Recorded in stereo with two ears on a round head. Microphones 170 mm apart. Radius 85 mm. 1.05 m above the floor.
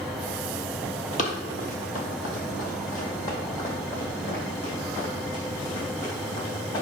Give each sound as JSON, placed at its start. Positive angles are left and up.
{"t": 1.2, "sound": "running footsteps", "side_deg": 40, "distance_m": 1.4}